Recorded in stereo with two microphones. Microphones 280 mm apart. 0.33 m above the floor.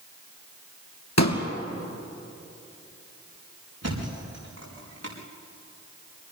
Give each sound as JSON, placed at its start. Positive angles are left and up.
{"t": 1.2, "sound": "a pop", "side_deg": 70, "distance_m": 2.5}
{"t": 3.8, "sound": "a thud", "side_deg": -60, "distance_m": 6.5}